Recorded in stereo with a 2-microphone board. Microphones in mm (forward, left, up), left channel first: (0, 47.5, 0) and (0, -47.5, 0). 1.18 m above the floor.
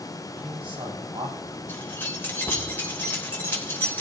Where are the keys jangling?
20° left (ahead or behind), 3 m.